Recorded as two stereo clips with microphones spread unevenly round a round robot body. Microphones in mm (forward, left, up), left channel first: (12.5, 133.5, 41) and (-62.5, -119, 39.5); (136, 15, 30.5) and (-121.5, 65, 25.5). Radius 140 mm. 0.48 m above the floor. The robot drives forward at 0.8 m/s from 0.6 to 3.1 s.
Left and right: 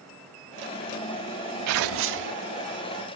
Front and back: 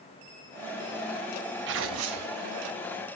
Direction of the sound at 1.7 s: 135° right.